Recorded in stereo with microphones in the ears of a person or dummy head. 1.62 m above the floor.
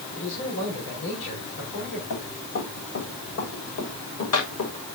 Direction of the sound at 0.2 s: 75° left (ahead or behind).